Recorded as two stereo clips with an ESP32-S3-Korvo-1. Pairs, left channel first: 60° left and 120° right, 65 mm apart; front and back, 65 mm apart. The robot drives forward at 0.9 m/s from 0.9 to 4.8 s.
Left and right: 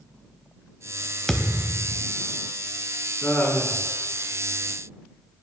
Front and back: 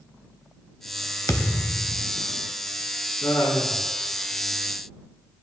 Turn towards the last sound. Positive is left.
turn(degrees=-15)